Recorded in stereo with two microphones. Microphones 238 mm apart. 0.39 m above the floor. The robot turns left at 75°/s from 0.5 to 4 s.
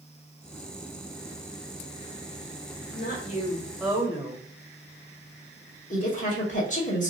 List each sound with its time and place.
2.9 s a woman speaking: 65° left, 1.6 m; by 4.4 s 15° right, 1.6 m
5.9 s a woman speaking: 30° left (ahead or behind), 1.7 m